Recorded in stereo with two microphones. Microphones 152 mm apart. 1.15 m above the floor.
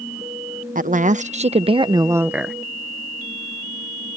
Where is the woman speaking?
60° right (ahead or behind); by 2.5 s centre (ahead or behind).